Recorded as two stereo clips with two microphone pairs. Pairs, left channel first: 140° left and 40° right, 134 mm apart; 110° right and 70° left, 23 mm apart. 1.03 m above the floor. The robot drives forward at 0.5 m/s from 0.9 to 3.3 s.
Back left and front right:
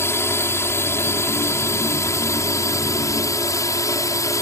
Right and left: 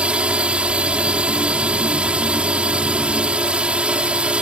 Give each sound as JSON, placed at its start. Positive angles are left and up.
{"t": 0.0, "sound": "a drone", "azimuth_deg": 70}